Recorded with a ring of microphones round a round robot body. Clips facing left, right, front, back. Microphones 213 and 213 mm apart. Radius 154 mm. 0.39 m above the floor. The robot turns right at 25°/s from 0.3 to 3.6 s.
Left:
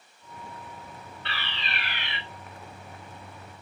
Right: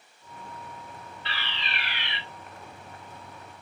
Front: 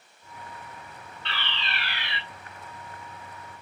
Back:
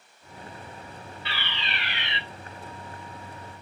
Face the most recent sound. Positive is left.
turn(degrees=160)